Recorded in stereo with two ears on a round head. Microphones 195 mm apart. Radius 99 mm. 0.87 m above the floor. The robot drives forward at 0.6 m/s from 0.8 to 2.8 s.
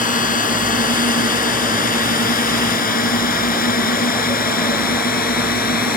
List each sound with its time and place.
0.0 s a drone: 40° left (ahead or behind); by 6.0 s 45° left (ahead or behind)